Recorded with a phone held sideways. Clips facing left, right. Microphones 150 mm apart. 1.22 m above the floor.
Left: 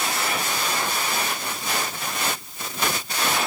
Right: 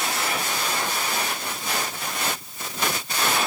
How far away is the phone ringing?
I don't hear a phone ringing.